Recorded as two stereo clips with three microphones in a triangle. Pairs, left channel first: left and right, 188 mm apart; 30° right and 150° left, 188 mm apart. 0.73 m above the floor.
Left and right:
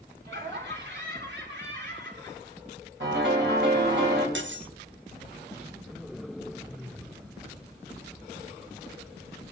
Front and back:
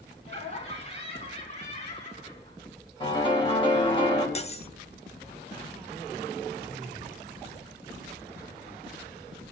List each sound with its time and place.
0.2 s laughter: 80° right, 7 m
3.0 s a piano: 90° right, 4 m
4.3 s cutlery clinking: 90° right, 0.8 m